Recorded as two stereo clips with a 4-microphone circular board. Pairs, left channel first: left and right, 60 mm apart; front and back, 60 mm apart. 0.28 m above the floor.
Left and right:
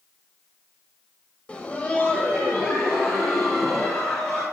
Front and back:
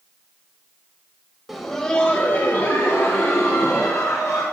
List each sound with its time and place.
1.5 s laughter: 95° left, 0.9 m; by 4.4 s 30° left, 2.5 m